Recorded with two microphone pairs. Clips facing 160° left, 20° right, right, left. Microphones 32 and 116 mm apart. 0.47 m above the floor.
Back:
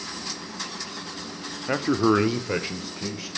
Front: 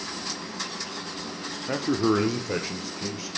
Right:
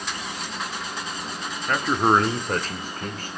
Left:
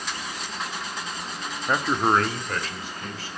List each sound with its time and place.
1.7 s a man speaking: 150° left, 0.8 m; by 3.3 s 125° right, 2.5 m